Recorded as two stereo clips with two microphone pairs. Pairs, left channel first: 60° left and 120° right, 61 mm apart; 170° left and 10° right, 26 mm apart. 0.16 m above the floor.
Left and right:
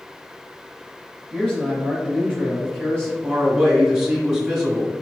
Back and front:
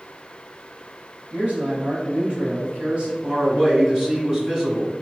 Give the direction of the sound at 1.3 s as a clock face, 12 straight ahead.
12 o'clock.